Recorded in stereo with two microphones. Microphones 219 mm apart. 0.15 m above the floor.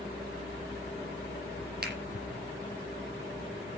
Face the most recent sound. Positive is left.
turn(degrees=-55)  # may be behind; listen again after turning